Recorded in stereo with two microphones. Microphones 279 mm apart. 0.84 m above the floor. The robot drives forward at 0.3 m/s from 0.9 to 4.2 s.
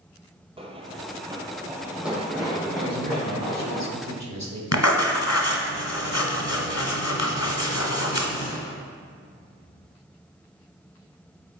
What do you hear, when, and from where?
0.6 s running footsteps: 20° right (ahead or behind), 1.0 m; by 3.8 s 5° left (ahead or behind), 3.5 m
2.8 s a man speaking: 60° right (ahead or behind), 1.6 m; by 4.6 s 70° right (ahead or behind), 1.5 m
4.7 s writing: 65° left (ahead or behind), 1.1 m